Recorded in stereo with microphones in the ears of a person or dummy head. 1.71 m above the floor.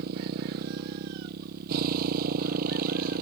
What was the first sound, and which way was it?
A motorcycle, 55° right (ahead or behind).